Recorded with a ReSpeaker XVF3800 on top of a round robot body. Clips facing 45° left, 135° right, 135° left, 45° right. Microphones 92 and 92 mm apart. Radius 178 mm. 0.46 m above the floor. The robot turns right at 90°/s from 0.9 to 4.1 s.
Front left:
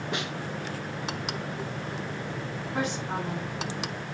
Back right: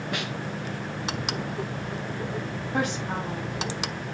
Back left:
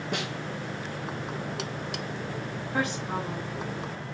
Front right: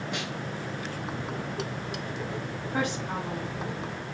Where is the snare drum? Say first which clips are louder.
Even, back left 5 dB; 110° left, 1.7 m.